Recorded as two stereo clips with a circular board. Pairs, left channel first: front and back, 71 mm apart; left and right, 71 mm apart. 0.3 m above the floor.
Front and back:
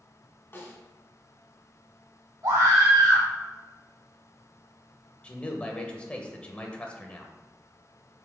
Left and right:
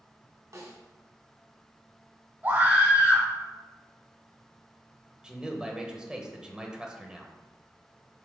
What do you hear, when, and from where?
0.5 s a snare drum: 60° right, 1.8 m
2.4 s a scream: 145° right, 3 m
5.2 s a man speaking: 35° right, 1.1 m